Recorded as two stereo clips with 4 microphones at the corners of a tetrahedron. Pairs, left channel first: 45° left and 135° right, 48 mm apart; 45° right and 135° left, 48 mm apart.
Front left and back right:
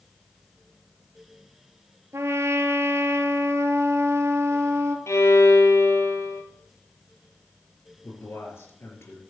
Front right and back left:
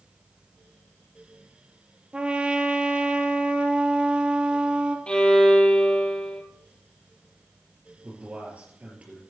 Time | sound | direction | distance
2.1 | a trumpet | 155° right | 1.1 m
5.1 | a violin | 25° left | 1.9 m
8.0 | a man speaking | 70° left | 4.5 m